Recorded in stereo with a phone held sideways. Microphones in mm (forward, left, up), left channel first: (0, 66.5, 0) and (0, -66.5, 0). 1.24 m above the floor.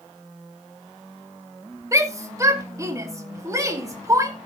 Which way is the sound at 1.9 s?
25° right (ahead or behind).